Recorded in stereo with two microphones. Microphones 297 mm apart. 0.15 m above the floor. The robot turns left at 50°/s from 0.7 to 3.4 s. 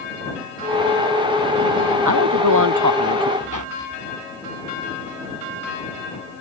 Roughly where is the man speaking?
Right.